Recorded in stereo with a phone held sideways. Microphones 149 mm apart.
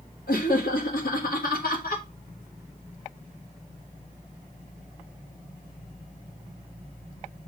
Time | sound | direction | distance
0.3 | laughter | 80° left | 1.4 m